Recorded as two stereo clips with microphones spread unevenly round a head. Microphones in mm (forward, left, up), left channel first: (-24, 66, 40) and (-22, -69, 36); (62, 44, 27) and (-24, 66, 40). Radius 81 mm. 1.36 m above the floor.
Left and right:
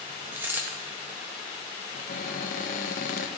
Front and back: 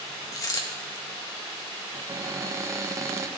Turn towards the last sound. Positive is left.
turn(degrees=115)